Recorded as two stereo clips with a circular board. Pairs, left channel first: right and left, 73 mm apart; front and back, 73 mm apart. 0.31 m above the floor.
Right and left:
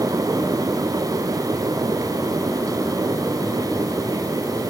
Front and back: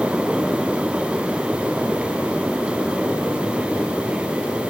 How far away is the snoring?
I don't hear snoring.